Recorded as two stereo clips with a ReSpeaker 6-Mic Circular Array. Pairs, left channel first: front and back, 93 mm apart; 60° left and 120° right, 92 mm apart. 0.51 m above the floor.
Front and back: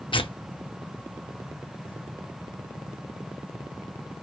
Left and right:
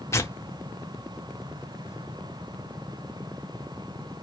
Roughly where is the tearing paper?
Ahead.